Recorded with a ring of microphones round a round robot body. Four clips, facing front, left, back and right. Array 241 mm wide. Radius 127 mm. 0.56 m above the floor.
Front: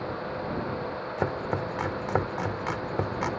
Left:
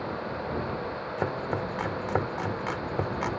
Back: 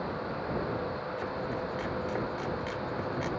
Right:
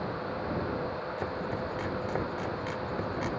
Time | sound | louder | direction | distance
1.2 | chopping | left 6 dB, front 8 dB | 35° left | ?